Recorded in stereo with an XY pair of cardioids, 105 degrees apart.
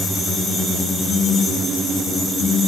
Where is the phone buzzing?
25° left, 0.8 m.